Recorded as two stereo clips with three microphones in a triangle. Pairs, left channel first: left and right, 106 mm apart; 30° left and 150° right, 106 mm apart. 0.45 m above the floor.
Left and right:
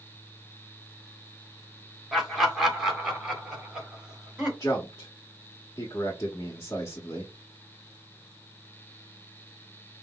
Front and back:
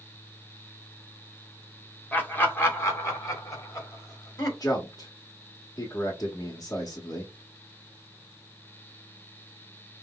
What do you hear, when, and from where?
2.1 s laughter: 10° right, 1.3 m
4.6 s a man speaking: 50° left, 1.2 m